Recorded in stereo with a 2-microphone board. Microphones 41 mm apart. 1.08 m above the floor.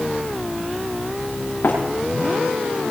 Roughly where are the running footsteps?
Left.